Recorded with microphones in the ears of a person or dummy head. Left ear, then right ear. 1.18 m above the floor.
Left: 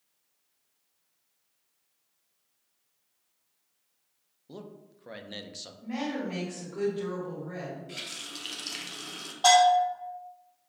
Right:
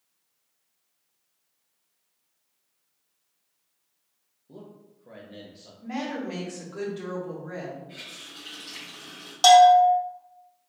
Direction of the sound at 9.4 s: 70° right (ahead or behind).